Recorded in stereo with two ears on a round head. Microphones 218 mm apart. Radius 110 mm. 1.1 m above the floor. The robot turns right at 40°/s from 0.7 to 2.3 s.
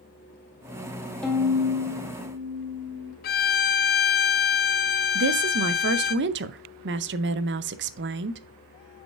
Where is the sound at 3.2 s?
40° left (ahead or behind), 0.5 m.